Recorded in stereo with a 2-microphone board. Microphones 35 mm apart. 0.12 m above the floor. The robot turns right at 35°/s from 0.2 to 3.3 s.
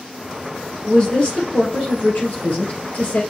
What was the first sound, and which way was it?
A woman speaking, 35° left.